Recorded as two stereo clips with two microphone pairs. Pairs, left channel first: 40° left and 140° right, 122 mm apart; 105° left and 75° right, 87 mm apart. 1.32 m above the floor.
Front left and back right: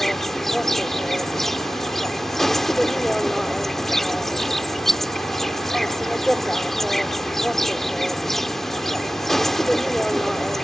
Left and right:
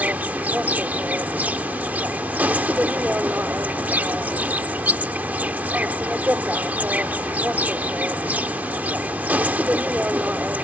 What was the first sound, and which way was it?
An insect, 55° right.